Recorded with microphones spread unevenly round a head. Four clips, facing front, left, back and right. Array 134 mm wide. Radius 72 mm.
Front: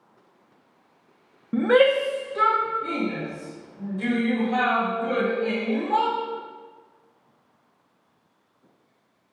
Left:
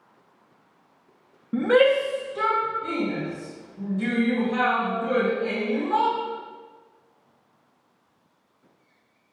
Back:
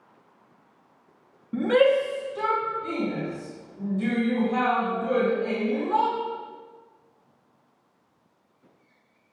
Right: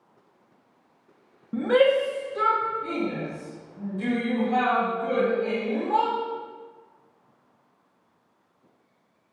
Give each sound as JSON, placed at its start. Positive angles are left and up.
{"t": 1.5, "sound": "a shout", "azimuth_deg": 15, "distance_m": 1.2}